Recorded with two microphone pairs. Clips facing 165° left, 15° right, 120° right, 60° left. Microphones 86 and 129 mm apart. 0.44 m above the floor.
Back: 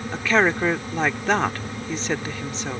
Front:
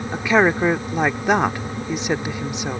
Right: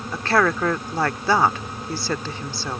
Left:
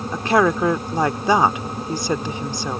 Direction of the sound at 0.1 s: 25° left.